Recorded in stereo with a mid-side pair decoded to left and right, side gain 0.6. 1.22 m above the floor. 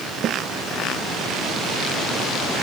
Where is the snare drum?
55° right.